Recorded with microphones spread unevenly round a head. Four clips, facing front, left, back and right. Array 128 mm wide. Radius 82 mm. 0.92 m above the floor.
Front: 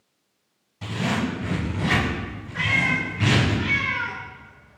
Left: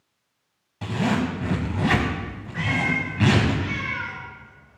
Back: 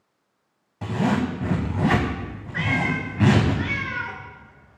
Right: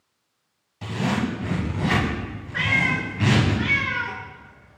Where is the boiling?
No boiling in this recording.